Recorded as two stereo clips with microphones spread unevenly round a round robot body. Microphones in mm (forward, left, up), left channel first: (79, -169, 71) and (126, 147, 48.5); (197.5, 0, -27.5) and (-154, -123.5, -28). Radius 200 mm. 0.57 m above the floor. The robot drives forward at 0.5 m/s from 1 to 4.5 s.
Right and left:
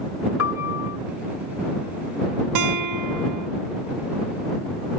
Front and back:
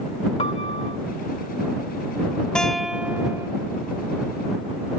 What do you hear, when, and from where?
0.4 s a piano: 55° right
2.5 s a guitar: 105° left; by 3.5 s 115° left